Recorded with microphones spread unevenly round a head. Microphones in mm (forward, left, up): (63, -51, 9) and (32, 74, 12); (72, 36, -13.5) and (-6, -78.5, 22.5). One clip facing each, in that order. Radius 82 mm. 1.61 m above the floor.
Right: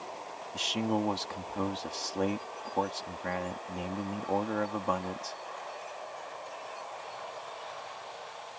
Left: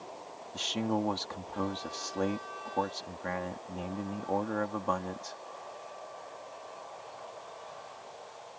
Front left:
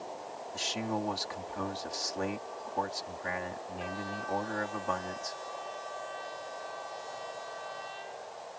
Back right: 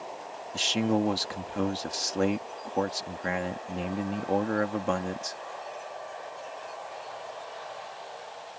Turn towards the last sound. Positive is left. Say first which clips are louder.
# right 1 dB, back right 8 dB
turn(degrees=-160)